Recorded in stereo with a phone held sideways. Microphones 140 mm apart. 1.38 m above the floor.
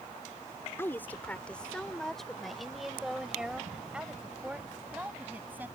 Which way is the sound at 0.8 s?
15° left (ahead or behind).